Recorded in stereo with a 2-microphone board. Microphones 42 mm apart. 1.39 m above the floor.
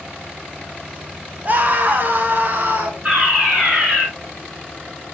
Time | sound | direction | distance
1.4 | a scream | 45° right (ahead or behind) | 1.7 m
3.0 | a fire alarm | 30° right (ahead or behind) | 5 m